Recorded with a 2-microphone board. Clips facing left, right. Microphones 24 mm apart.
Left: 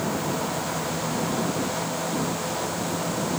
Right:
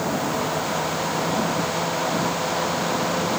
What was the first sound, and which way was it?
Only background noise.